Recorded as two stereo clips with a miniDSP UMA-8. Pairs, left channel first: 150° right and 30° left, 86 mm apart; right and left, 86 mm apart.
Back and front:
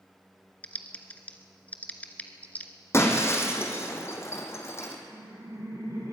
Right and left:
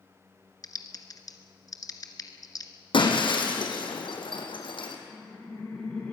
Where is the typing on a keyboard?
85° right, 1.3 m.